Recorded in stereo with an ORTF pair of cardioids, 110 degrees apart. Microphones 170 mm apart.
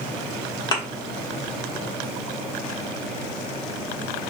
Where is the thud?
25° left, 1.2 m.